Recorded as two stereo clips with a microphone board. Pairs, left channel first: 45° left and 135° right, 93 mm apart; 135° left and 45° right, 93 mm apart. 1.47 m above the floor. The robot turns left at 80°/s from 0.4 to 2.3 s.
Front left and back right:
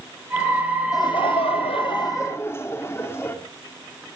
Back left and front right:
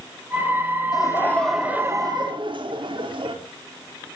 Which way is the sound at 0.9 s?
90° left.